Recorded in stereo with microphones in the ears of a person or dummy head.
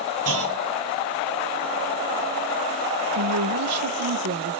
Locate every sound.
0.2 s a clunk: 75° right (ahead or behind), 0.9 m
3.1 s a woman speaking: 85° right, 0.7 m